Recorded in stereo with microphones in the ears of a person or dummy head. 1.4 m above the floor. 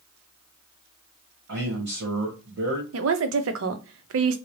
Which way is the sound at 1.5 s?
55° right (ahead or behind).